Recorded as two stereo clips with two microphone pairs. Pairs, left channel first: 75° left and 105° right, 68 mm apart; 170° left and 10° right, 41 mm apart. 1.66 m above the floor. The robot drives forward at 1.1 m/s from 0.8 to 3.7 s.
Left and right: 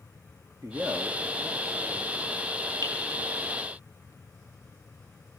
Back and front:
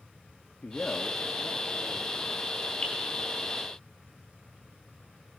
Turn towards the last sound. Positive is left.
turn(degrees=-130)